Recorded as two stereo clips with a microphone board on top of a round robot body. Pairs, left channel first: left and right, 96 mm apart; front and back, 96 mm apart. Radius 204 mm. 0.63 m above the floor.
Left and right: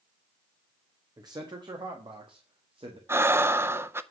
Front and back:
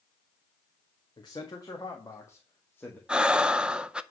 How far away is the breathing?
About 0.9 m.